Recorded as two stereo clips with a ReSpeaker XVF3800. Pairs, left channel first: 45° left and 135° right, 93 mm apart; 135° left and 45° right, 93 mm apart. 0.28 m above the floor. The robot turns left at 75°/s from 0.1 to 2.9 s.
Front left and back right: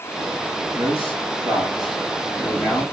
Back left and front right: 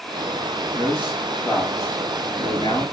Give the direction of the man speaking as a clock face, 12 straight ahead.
3 o'clock.